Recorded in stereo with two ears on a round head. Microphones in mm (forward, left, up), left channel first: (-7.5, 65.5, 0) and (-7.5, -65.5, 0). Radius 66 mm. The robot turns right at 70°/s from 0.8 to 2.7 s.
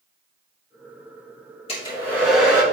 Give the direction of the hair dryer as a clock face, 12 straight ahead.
7 o'clock.